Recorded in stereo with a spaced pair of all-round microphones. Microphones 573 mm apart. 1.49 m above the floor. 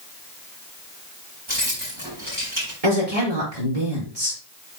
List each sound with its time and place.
1.5 s keys jangling: 55° right (ahead or behind), 5.5 m
2.8 s a woman speaking: 85° right, 5 m